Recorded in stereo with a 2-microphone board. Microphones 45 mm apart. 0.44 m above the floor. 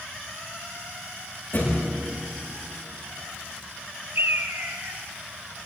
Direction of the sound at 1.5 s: 55° left (ahead or behind).